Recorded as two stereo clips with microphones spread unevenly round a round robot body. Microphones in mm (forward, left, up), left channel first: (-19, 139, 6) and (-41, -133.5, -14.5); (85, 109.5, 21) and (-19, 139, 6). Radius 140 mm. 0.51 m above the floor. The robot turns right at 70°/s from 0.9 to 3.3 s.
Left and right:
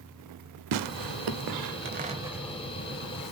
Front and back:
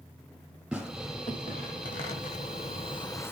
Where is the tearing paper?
110° right, 0.6 m; by 3.3 s 60° left, 0.6 m.